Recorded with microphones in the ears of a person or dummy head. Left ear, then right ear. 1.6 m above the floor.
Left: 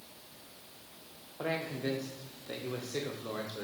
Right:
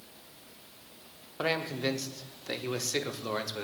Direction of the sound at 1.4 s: 85° right.